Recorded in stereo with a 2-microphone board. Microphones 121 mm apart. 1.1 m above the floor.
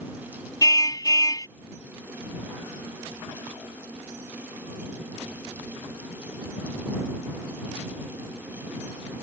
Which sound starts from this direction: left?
A car horn, at 0.6 s.